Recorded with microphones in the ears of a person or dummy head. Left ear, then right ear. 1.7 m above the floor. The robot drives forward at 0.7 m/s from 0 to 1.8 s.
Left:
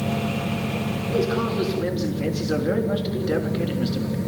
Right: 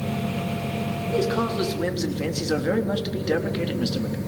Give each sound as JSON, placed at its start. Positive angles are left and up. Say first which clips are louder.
{"t": 1.1, "sound": "a man speaking", "louder": "even", "side_deg": -15, "distance_m": 4.0}